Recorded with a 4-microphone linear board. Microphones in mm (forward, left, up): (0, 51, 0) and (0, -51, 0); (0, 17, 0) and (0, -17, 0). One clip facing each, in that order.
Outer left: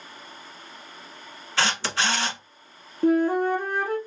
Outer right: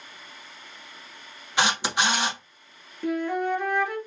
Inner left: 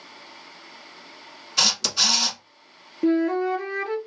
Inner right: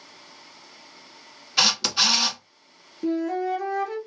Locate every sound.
1.6 s a camera shutter: 15° right (ahead or behind), 0.8 m
3.0 s a flute: 40° left (ahead or behind), 0.7 m